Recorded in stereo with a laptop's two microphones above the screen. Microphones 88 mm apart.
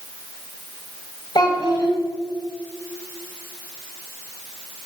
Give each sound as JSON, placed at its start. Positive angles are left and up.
{"t": 1.4, "sound": "a child speaking", "side_deg": 50, "distance_m": 1.0}